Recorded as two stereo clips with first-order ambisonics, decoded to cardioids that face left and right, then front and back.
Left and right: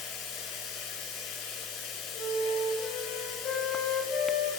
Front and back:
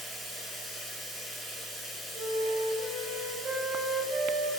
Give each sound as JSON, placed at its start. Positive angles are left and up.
{"t": 0.0, "sound": "running water", "azimuth_deg": 120, "distance_m": 5.0}
{"t": 2.1, "sound": "a flute", "azimuth_deg": 130, "distance_m": 4.5}